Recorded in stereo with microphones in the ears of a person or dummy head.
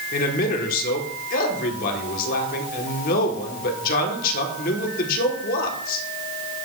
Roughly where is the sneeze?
I don't hear a sneeze.